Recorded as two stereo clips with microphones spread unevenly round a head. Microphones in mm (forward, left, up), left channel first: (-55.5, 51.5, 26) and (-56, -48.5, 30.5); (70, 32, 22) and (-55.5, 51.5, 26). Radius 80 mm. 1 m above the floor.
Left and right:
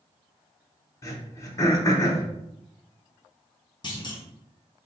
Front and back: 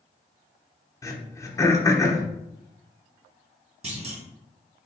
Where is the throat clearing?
45° left, 0.9 m.